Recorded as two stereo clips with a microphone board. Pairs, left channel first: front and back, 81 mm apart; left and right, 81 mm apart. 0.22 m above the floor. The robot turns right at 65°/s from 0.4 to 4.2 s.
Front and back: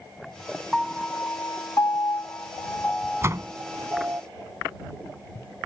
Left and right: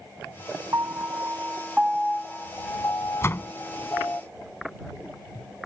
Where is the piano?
80° right; by 4.2 s 145° left.